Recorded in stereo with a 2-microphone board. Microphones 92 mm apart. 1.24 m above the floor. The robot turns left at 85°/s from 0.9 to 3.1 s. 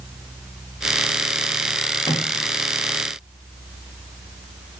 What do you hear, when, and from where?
2.0 s a microwave: 55° left (ahead or behind), 2.0 m; by 2.3 s 80° left, 2.0 m